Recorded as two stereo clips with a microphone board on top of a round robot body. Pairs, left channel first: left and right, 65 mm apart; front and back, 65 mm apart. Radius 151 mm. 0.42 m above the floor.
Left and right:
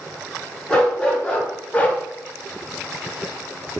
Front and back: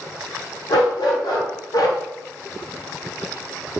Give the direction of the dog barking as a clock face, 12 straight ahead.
12 o'clock.